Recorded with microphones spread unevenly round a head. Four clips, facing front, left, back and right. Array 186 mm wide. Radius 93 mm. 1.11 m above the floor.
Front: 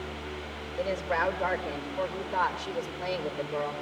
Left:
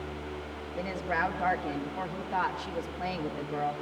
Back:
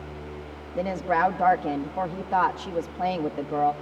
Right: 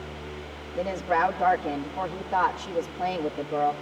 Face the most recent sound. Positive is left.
turn(degrees=-165)